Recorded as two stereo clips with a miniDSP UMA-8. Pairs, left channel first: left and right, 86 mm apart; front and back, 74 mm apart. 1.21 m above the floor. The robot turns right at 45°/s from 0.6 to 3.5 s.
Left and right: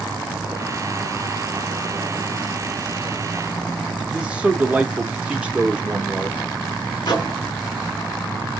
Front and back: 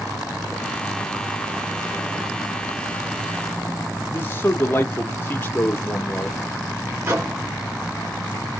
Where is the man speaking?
30° right, 0.5 m.